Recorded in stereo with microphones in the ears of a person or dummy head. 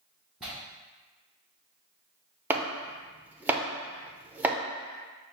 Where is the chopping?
10° right (ahead or behind), 0.5 m.